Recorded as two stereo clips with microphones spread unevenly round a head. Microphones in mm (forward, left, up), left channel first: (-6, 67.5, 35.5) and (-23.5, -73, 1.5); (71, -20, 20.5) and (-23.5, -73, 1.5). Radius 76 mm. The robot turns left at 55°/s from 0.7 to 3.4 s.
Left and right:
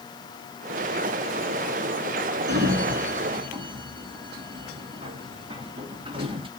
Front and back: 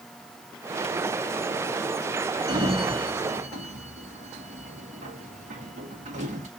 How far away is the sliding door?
About 1.7 m.